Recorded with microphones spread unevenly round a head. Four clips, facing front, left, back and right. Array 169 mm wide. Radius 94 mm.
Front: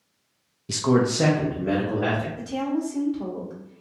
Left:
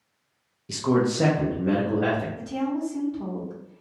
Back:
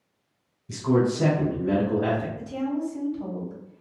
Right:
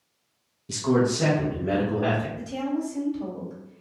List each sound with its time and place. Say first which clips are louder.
0.7 s a man speaking: even, front 1 dB; 5° right, 0.6 m; by 2.3 s 40° left, 3 m
2.4 s a woman speaking: left 1 dB, front 2 dB; 25° left, 2 m